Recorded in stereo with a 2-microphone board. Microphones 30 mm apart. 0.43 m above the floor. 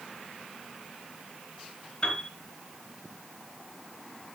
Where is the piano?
30° left (ahead or behind), 4 m.